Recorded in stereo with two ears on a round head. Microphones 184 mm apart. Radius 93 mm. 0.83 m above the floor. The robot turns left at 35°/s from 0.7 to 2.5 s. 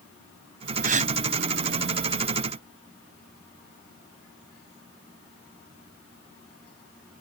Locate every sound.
0.8 s a gasp: 45° right (ahead or behind); by 1.1 s 35° right (ahead or behind)